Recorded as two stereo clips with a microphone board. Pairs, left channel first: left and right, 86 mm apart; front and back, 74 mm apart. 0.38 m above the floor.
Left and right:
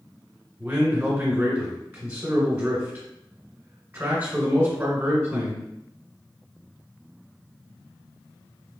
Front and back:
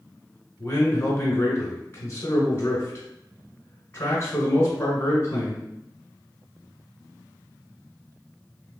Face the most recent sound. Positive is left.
turn(degrees=-35)